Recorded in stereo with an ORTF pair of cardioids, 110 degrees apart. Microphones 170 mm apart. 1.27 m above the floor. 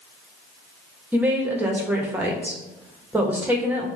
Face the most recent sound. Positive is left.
turn(degrees=-10)